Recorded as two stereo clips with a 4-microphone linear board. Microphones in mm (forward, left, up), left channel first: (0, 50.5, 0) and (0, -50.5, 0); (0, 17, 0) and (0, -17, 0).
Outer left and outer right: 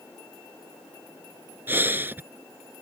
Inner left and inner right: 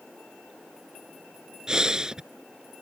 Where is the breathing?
25° right (ahead or behind).